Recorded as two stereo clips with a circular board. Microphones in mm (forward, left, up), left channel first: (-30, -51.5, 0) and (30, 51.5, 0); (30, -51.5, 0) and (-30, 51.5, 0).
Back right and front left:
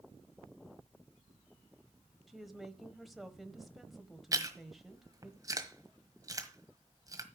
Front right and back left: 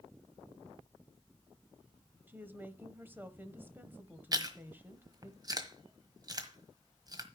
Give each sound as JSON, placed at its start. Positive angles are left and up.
{"t": 2.3, "sound": "a woman speaking", "azimuth_deg": 150, "distance_m": 1.0}
{"t": 4.3, "sound": "chewing", "azimuth_deg": 95, "distance_m": 1.4}